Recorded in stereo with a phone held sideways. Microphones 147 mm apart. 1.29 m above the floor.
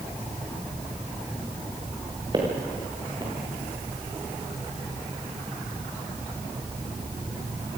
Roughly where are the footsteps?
Right.